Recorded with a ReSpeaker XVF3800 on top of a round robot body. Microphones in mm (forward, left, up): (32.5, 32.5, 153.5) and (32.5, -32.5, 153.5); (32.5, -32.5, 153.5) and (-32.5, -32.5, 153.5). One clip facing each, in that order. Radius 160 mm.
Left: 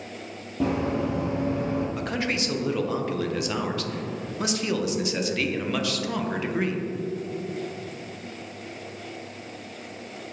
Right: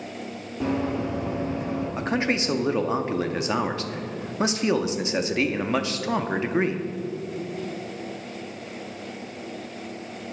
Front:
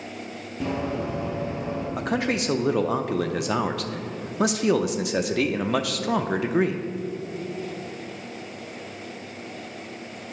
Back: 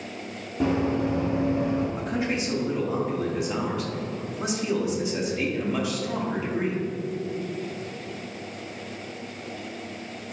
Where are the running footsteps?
105° left, 1.3 m; by 1.9 s 145° left, 2 m.